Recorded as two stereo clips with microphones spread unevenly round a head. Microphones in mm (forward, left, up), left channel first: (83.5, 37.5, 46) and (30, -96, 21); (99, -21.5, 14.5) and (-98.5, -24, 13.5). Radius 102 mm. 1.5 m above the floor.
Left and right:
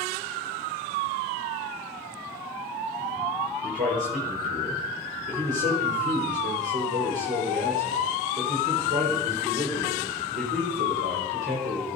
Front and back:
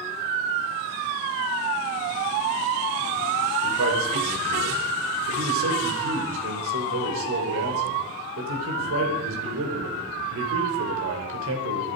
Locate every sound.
3.6 s a man speaking: 165° right, 5 m